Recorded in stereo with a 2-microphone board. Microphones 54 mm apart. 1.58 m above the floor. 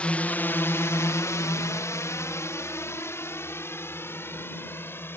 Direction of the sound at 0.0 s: 25° left (ahead or behind).